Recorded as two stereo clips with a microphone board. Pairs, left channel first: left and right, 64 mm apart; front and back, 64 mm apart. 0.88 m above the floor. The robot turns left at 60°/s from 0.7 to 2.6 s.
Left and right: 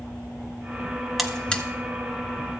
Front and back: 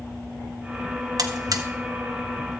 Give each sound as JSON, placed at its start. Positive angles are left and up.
{"t": 1.2, "sound": "a buzzer", "azimuth_deg": 180, "distance_m": 0.9}